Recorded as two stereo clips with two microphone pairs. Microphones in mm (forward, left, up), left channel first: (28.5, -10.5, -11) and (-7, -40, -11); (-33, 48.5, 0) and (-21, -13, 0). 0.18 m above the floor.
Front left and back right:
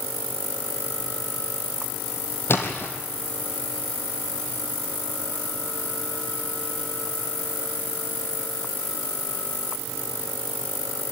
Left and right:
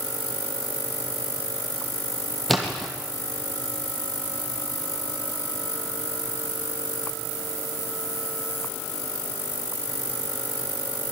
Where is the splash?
15° left, 4 m.